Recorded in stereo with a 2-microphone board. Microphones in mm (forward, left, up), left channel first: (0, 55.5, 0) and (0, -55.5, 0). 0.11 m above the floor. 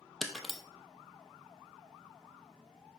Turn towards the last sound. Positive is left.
turn(degrees=0)  # may be behind; listen again after turning